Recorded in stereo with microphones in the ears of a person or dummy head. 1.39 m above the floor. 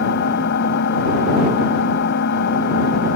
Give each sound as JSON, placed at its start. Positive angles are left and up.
{"t": 0.0, "sound": "an engine running", "side_deg": 65}